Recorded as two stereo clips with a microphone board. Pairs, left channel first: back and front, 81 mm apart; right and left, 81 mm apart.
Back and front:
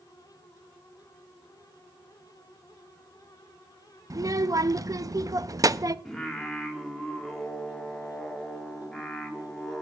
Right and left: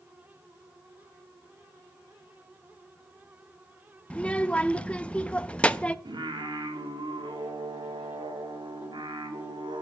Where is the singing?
95° left, 1.9 m.